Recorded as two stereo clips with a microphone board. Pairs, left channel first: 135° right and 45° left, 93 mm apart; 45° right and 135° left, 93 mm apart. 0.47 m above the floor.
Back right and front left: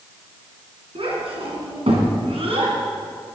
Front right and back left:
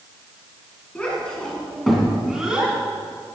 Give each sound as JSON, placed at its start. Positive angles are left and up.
{"t": 0.9, "sound": "a child speaking", "azimuth_deg": 30, "distance_m": 3.5}